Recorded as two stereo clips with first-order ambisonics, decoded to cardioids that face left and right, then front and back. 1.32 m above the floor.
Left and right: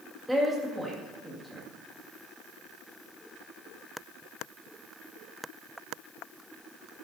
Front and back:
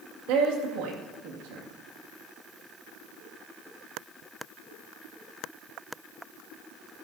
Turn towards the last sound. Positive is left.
turn(degrees=180)